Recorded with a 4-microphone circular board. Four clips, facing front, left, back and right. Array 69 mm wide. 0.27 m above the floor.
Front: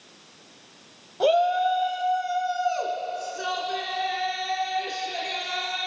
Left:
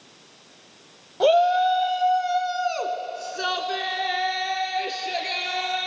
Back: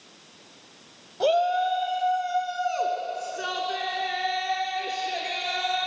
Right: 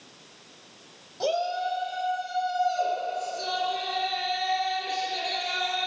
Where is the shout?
80° left, 1.1 m; by 5.9 s 105° left, 4.5 m.